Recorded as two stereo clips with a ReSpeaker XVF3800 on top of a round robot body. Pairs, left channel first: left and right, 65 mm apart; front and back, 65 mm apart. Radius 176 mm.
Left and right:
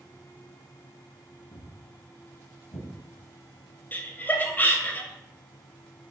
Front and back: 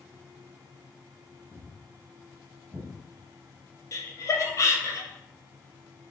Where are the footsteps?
90° left, 1.7 m; by 2.9 s 115° left, 2.0 m.